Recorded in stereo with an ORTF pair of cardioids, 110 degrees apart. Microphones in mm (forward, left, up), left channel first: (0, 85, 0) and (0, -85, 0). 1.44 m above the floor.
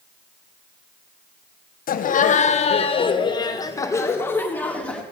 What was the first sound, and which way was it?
Laughter, 55° left.